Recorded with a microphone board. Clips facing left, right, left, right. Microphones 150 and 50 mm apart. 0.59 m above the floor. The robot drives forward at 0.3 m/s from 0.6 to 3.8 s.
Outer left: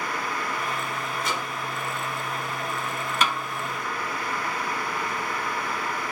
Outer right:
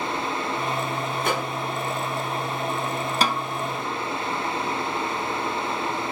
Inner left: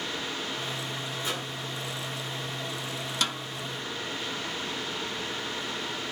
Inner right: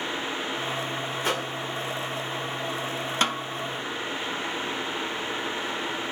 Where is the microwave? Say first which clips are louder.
Outer right 6 dB, inner right 7 dB; 60° right (ahead or behind), 1.4 m.